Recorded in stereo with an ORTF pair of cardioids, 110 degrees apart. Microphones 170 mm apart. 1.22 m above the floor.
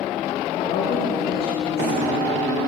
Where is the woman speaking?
60° left, 2.5 m.